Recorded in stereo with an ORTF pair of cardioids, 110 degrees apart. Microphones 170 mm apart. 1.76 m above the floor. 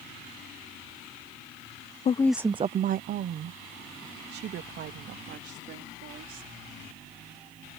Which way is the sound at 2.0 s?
35° left.